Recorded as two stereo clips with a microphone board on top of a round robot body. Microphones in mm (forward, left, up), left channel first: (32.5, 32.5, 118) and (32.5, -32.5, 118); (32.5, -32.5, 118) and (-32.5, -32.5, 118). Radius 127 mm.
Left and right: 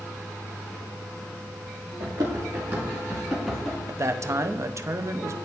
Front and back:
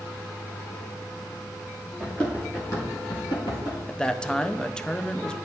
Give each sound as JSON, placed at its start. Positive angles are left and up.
{"t": 2.0, "sound": "running footsteps", "azimuth_deg": -85, "distance_m": 1.5}
{"t": 3.9, "sound": "a man speaking", "azimuth_deg": -75, "distance_m": 0.7}